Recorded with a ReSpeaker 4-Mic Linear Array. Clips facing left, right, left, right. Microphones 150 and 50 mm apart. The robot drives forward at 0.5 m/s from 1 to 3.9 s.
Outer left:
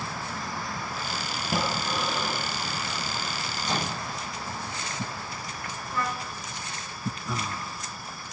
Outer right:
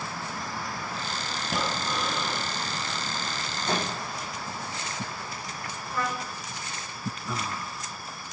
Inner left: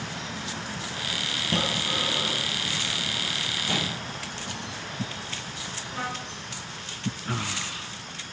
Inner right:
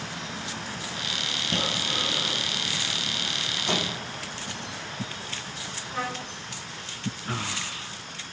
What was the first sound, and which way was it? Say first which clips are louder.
Breathing: outer left 2 dB, inner left 2 dB; 5° left (ahead or behind).